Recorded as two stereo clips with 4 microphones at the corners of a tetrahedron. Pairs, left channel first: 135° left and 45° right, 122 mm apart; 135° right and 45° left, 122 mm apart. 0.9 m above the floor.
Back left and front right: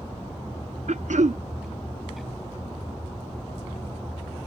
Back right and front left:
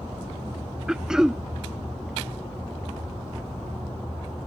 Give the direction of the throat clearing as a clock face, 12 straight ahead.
1 o'clock.